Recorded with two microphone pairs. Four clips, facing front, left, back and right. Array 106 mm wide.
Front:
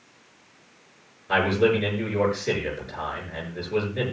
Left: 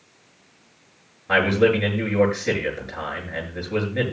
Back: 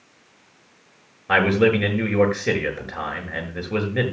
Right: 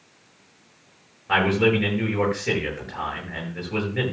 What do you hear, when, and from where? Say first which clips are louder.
1.3 s a man speaking: left 2 dB, back 3 dB; 170° left, 7 m